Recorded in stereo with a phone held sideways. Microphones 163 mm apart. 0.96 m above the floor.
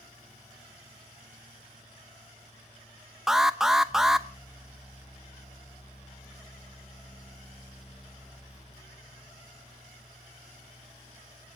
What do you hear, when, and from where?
0.0 s a fan: 45° left (ahead or behind), 5.5 m
3.3 s an alarm: 5° right (ahead or behind), 0.7 m